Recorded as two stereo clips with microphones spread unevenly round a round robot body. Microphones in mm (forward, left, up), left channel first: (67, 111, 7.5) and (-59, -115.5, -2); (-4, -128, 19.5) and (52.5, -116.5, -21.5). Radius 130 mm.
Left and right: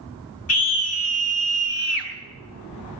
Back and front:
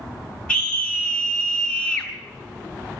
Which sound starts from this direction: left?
A scream, at 0.5 s.